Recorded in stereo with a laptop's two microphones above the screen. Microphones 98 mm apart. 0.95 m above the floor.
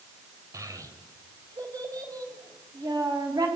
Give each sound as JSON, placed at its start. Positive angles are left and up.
{"t": 0.5, "sound": "a child speaking", "side_deg": -35, "distance_m": 3.5}